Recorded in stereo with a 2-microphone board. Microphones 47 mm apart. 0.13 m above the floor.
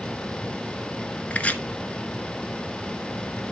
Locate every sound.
1.3 s chopping: 30° left (ahead or behind), 0.9 m